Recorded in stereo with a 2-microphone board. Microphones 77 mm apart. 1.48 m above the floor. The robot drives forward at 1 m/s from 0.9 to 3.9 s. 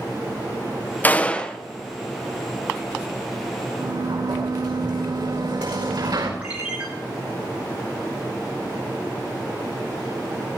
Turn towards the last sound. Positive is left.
turn(degrees=-15)  # may be behind; listen again after turning